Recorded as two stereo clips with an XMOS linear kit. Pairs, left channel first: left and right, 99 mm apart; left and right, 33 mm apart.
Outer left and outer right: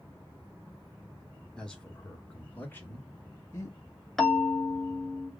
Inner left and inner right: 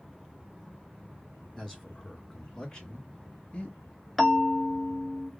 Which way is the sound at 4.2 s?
Centre (ahead or behind).